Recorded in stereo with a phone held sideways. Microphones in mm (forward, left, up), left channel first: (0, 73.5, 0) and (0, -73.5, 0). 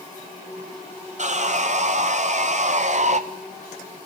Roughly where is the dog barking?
I don't hear a dog barking.